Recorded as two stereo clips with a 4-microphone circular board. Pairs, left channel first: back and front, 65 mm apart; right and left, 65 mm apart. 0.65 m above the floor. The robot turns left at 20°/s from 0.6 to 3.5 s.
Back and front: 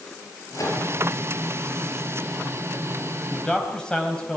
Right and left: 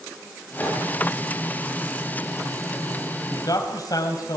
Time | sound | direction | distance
0.5 | a microwave | 150° right | 9.5 m
3.3 | a man speaking | 100° right | 3 m